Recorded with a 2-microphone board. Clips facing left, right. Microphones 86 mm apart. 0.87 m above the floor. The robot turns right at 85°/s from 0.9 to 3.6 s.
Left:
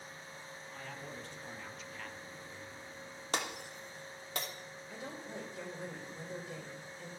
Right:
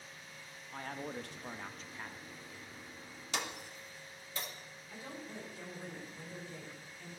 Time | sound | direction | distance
0.7 | a man speaking | 125° right | 0.7 m
3.3 | breaking glass | 50° left (ahead or behind) | 1.1 m
4.9 | a woman speaking | 75° left (ahead or behind) | 3 m